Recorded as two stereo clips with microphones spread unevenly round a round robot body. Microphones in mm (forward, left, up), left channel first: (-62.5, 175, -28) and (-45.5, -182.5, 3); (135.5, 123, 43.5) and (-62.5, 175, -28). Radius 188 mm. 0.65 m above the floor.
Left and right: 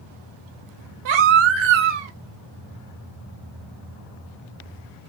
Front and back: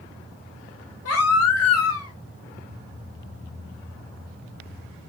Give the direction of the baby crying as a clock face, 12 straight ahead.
2 o'clock.